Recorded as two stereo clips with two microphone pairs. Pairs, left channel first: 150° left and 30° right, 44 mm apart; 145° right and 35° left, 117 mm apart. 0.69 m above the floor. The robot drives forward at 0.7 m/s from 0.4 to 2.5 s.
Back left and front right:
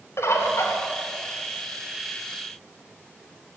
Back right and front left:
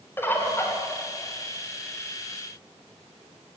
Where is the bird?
145° left, 2 m.